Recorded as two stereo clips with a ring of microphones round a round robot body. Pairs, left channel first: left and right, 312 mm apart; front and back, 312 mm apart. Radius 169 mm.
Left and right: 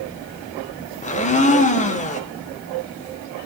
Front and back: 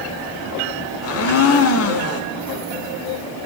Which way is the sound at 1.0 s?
30° left.